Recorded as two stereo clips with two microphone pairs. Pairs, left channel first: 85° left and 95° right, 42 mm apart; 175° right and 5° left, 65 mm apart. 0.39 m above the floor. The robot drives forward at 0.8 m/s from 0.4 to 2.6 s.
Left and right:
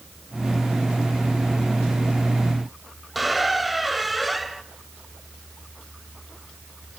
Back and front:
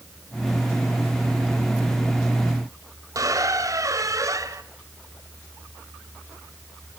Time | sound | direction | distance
3.1 | a squeak | 5° right | 1.1 m